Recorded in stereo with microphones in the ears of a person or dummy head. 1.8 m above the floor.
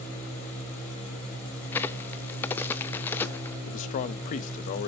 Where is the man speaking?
45° left (ahead or behind), 0.7 m.